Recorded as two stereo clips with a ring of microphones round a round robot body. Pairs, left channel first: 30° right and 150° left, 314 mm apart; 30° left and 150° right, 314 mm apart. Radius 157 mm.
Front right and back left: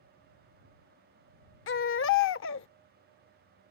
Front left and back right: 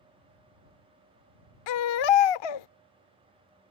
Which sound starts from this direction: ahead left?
A baby crying, at 1.7 s.